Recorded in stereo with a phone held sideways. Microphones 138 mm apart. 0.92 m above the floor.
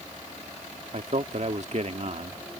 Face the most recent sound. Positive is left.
turn(degrees=-55)  # may be behind; listen again after turning